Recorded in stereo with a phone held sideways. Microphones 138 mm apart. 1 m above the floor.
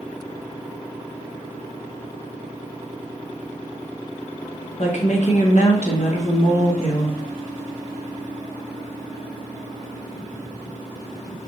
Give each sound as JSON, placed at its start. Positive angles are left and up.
{"t": 4.8, "sound": "a woman speaking", "side_deg": 55, "distance_m": 0.8}